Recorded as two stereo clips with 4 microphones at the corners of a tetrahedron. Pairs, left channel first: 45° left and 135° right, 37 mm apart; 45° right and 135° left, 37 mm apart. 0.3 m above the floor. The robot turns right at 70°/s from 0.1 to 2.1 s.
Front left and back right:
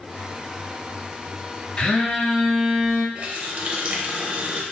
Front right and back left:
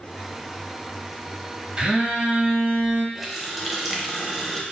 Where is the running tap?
145° right, 0.7 m.